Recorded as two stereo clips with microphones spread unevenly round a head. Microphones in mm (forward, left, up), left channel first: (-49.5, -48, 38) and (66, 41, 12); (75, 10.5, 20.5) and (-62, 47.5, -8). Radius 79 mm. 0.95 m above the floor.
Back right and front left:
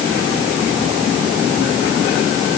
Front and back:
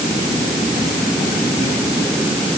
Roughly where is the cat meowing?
No cat meowing in this recording.